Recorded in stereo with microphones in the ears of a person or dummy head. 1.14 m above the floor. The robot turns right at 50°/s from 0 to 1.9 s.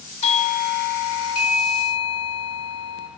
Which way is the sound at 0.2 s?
35° left.